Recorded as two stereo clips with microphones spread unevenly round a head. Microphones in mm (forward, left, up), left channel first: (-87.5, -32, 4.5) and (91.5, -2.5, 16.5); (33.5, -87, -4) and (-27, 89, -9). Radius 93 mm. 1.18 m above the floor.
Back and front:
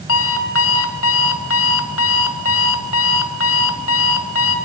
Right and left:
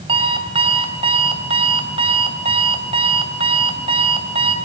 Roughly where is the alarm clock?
Behind.